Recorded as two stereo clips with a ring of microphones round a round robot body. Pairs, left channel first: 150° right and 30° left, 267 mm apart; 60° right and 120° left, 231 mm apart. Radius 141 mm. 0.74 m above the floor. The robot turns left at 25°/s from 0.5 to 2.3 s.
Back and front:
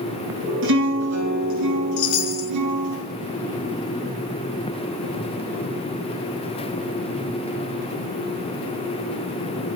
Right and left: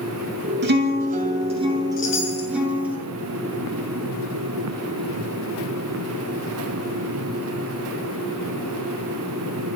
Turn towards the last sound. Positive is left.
turn(degrees=-130)